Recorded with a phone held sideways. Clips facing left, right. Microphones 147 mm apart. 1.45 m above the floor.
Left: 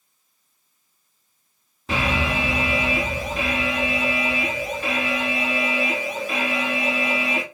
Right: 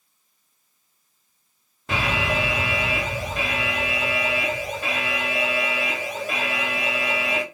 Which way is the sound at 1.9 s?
Centre (ahead or behind).